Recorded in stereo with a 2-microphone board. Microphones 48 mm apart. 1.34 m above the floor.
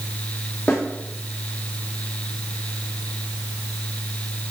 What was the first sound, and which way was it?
A snare drum, 30° left (ahead or behind).